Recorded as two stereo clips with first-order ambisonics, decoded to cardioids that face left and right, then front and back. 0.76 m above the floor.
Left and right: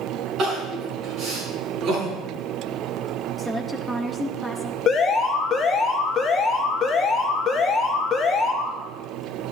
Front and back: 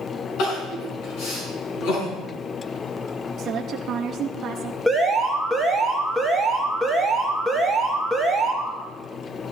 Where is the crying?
30° right, 5 m.